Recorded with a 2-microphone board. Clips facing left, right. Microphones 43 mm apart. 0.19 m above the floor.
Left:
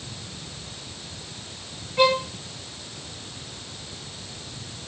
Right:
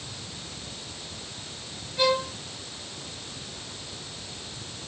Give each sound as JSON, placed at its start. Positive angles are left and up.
{"t": 2.0, "sound": "a violin", "side_deg": 45, "distance_m": 5.0}